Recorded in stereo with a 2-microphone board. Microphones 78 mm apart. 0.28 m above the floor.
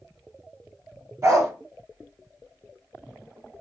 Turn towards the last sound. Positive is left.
turn(degrees=-40)  # may be behind; listen again after turning